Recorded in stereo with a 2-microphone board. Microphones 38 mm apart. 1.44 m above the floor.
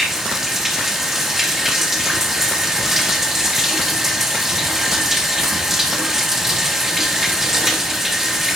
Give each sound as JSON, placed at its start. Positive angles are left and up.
{"t": 0.0, "sound": "running water", "side_deg": -10, "distance_m": 0.9}